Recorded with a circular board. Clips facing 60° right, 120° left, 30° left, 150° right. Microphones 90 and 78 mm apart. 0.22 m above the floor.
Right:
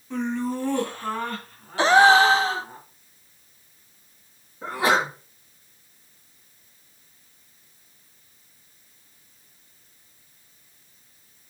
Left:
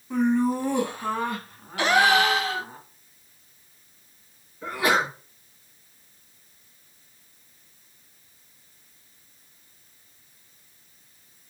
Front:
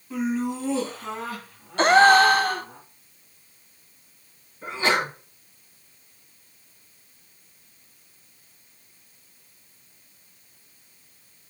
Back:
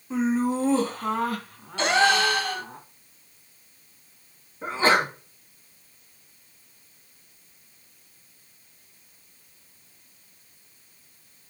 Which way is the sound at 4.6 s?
110° right.